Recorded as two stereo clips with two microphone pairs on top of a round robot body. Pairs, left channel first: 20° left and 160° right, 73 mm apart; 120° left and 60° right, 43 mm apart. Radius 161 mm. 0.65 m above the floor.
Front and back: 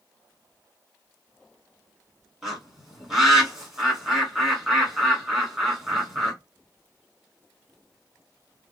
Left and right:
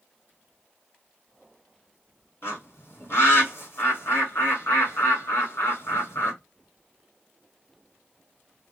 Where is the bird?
120° left, 2 m.